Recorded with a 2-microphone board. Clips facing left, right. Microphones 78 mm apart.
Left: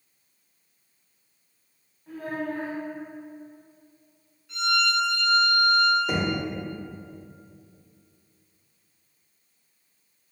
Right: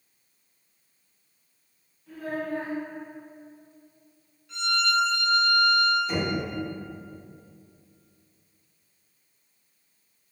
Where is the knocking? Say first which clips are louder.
Left 2 dB; 65° left (ahead or behind), 0.6 m.